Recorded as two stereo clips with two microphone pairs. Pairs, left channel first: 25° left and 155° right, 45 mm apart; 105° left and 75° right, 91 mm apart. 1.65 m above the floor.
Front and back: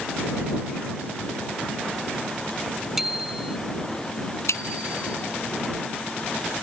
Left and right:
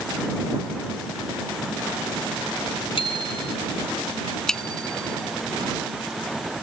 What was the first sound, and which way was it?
A bicycle bell, 120° left.